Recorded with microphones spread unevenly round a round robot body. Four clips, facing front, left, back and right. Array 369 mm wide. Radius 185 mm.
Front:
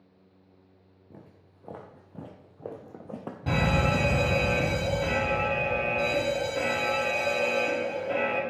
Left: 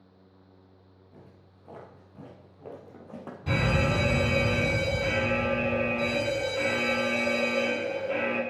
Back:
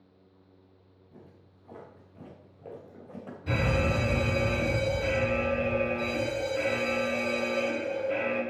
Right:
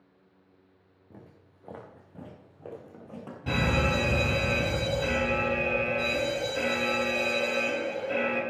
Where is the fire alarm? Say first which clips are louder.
Even, front 2 dB; 5° right, 8 m.